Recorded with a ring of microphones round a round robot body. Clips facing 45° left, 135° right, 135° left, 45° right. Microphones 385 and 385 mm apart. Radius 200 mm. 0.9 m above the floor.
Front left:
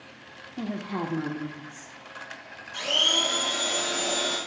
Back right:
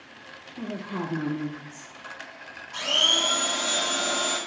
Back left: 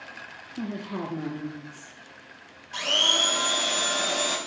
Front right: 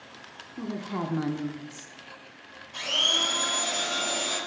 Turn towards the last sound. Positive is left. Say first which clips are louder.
# even, back left 4 dB
turn(degrees=155)